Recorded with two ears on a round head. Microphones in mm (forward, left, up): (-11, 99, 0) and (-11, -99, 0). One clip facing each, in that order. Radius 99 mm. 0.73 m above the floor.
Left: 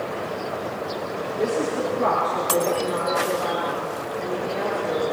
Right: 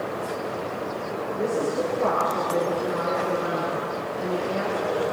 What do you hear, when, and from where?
1.4 s a woman speaking: 10° left (ahead or behind), 6.5 m; by 5.0 s 20° right (ahead or behind), 8 m